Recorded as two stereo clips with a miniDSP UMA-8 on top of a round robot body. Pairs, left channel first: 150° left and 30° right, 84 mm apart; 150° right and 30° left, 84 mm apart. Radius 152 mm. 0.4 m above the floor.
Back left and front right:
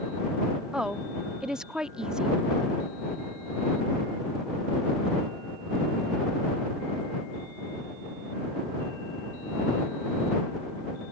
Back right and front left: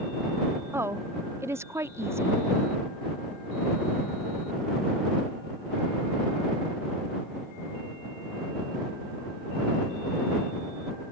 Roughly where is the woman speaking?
Ahead left.